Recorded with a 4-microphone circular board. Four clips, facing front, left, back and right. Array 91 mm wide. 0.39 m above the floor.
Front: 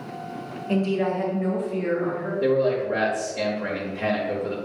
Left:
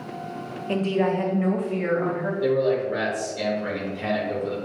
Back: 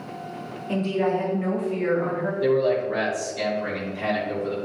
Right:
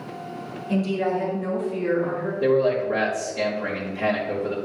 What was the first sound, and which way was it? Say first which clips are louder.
A woman speaking: left 1 dB, even; 80° left.